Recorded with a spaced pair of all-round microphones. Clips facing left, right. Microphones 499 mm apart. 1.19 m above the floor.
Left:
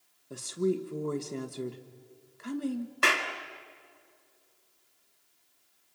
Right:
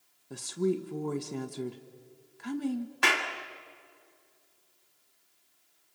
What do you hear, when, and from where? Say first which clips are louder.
0.3 s a woman speaking: even; 5° right (ahead or behind), 1.6 m
3.0 s a clap: even; 5° right (ahead or behind), 1.8 m